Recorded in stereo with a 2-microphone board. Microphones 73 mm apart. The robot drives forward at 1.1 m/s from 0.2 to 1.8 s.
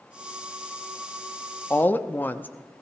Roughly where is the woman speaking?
Left.